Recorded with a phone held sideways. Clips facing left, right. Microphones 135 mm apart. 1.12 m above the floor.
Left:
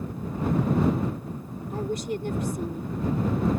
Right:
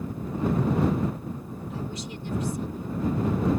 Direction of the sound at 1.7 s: 55° left (ahead or behind).